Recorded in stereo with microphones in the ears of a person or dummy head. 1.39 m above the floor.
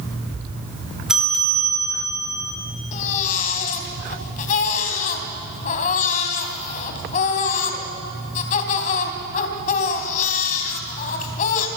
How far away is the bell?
About 1.9 m.